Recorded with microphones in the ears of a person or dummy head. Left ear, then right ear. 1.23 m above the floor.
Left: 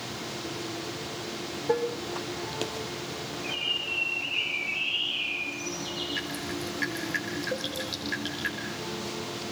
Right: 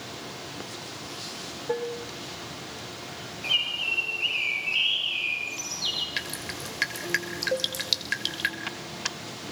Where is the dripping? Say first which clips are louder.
Even; 60° right (ahead or behind), 5.5 m.